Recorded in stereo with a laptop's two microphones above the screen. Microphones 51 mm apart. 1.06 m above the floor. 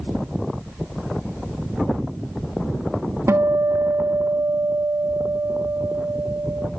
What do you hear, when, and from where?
3.3 s a guitar: 70° right (ahead or behind), 1.1 m